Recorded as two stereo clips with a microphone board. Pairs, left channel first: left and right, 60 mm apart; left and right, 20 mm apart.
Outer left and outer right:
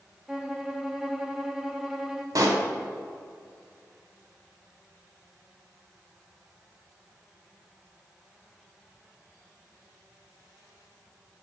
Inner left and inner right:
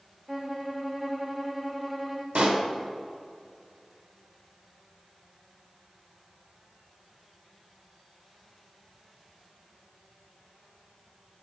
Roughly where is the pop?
Right.